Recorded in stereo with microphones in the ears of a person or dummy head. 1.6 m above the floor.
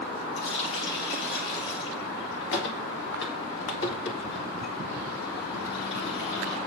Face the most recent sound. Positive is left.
turn(degrees=70)  # may be behind; listen again after turning